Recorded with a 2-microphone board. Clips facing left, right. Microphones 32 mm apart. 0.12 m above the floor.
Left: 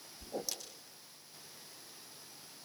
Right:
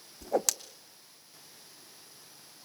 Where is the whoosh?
75° right (ahead or behind), 1.3 m.